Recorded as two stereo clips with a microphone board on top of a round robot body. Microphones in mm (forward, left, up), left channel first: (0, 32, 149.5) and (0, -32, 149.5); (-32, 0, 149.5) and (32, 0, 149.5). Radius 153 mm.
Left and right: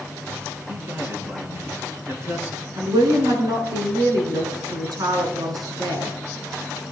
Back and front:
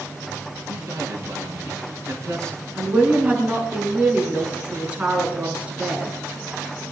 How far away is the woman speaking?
About 6.5 m.